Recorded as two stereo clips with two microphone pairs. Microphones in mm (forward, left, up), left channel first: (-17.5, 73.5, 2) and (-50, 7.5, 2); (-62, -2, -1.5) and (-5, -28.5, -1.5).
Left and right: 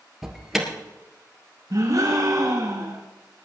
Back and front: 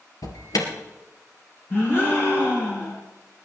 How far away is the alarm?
About 2.5 m.